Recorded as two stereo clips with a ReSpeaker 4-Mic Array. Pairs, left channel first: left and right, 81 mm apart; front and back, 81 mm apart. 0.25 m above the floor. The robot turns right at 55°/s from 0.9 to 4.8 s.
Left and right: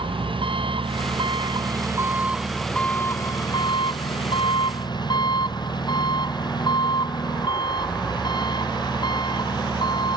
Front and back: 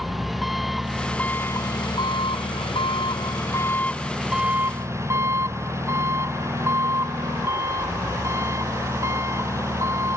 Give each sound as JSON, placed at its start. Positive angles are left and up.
{"t": 0.0, "sound": "an engine running", "azimuth_deg": -90}